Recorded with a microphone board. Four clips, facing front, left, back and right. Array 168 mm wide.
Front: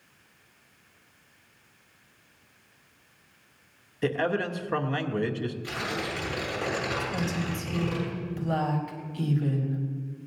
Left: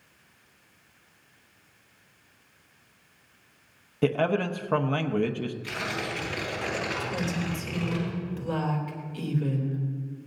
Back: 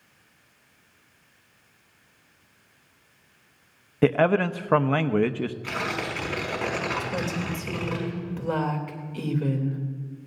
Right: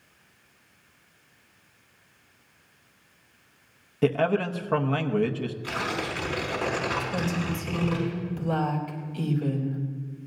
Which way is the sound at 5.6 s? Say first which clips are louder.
Right 3 dB, back 2 dB; 160° right.